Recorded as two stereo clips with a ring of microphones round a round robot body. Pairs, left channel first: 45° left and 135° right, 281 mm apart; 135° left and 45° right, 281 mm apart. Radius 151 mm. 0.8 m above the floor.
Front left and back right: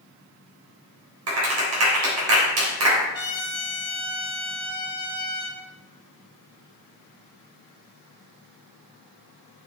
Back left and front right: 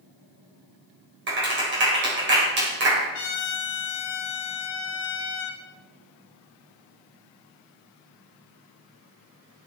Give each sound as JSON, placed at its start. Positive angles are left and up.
{"t": 1.3, "sound": "a clap", "azimuth_deg": -95, "distance_m": 3.5}
{"t": 3.1, "sound": "a trumpet", "azimuth_deg": 115, "distance_m": 2.0}